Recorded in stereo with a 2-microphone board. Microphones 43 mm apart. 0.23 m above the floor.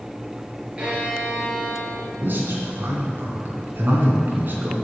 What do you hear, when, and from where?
0.8 s a violin: 25° right (ahead or behind), 2.5 m
2.2 s a man speaking: 45° right (ahead or behind), 2.5 m